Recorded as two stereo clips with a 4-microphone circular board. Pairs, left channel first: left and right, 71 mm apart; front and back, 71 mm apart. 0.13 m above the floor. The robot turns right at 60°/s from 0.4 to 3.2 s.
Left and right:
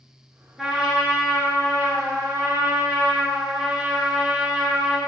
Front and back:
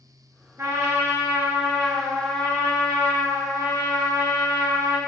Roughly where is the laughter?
No laughter in this recording.